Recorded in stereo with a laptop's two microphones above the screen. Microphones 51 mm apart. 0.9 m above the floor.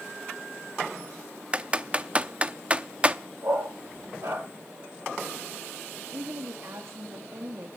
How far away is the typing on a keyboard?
About 0.7 m.